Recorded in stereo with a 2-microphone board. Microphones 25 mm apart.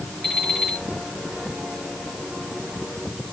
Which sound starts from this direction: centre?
An alarm clock, at 0.2 s.